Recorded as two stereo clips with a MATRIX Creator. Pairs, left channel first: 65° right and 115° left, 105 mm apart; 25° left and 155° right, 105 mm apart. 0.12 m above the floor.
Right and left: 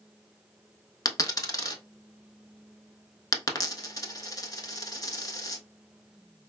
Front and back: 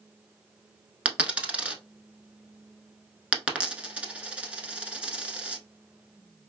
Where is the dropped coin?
85° right, 0.7 m.